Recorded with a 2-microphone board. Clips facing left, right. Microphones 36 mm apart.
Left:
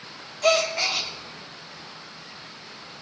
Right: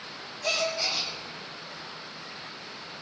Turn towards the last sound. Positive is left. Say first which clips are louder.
# left 7 dB
turn(degrees=75)  # may be behind; listen again after turning